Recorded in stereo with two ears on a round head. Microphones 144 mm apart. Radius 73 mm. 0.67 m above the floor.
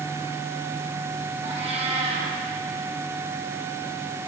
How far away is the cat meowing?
About 7.5 m.